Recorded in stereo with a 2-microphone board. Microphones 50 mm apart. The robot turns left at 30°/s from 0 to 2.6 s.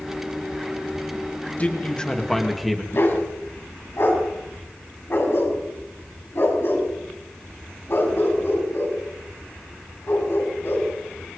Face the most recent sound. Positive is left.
turn(degrees=55)  # may be behind; listen again after turning